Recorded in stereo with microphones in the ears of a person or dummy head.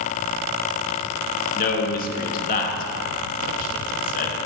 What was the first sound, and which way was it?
A man speaking, 45° left (ahead or behind).